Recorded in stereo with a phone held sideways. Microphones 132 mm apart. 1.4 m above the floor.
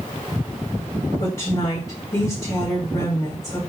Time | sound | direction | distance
1.2 | a woman speaking | 40° left (ahead or behind) | 1.5 m